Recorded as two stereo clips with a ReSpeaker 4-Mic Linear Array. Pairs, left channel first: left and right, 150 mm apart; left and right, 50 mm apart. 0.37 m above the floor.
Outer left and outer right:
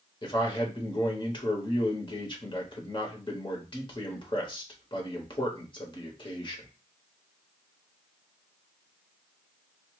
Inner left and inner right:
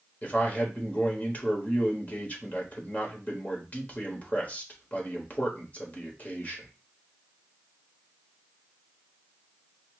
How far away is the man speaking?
About 1.1 m.